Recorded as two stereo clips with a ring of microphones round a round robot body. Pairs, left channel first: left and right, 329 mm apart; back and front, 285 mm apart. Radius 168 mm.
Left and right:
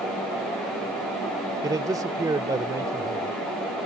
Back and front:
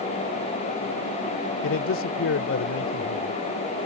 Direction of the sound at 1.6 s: 165° right.